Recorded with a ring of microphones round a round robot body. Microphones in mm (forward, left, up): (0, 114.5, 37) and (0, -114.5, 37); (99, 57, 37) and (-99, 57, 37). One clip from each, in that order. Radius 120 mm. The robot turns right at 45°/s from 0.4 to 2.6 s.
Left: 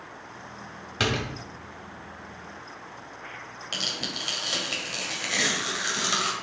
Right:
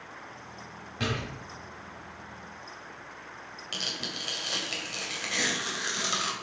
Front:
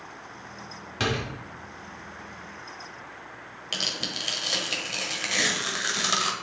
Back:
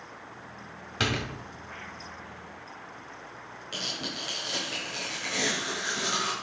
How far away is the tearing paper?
About 1.6 m.